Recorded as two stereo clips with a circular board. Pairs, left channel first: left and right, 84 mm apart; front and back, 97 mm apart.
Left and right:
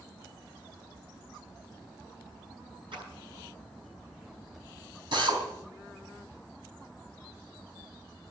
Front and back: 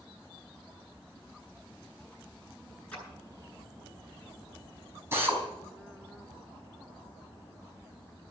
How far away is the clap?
About 9 m.